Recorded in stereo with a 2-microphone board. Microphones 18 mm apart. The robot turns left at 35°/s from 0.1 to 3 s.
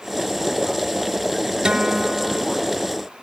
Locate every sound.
1.6 s a guitar: 50° right (ahead or behind), 0.9 m; by 2.4 s 25° right (ahead or behind), 0.9 m